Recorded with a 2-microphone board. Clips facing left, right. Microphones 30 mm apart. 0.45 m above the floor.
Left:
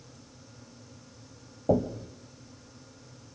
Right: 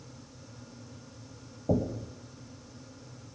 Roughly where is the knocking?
Left.